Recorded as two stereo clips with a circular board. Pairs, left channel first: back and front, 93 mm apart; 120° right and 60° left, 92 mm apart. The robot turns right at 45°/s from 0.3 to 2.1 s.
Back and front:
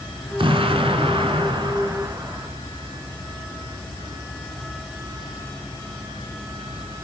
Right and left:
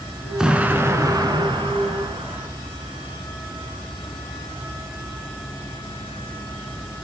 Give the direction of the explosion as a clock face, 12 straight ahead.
1 o'clock.